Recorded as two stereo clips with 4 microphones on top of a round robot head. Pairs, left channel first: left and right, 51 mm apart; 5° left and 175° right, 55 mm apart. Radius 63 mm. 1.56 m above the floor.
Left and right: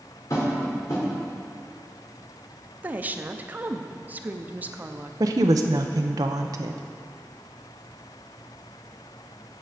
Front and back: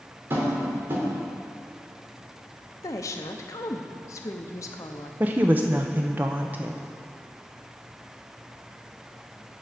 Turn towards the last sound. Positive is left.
turn(degrees=-105)